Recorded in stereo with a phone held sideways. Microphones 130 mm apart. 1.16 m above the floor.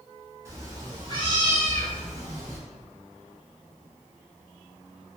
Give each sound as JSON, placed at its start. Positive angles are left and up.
{"t": 0.5, "sound": "a cat meowing", "side_deg": -25, "distance_m": 1.3}